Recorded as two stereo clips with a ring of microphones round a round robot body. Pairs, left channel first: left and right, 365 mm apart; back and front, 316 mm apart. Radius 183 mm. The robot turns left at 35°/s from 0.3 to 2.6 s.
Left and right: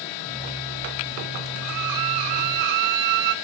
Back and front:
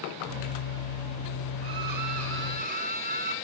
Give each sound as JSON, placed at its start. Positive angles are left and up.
{"t": 1.6, "sound": "a violin", "azimuth_deg": -35, "distance_m": 0.9}